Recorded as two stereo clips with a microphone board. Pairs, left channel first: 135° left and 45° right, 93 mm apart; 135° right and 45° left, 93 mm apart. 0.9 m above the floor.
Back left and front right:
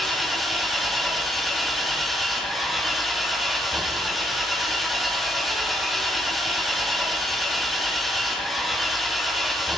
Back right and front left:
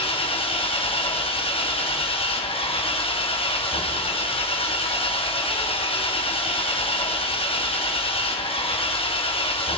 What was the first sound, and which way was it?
An engine running, 135° right.